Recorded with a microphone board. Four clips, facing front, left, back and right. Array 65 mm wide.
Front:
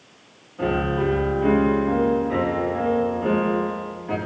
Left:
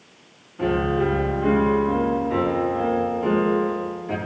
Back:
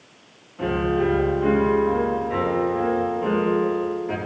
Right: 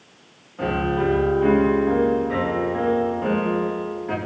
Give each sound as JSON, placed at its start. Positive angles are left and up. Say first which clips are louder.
{"t": 0.6, "sound": "a piano", "louder": "left 1 dB, back 1 dB", "azimuth_deg": -85, "distance_m": 2.5}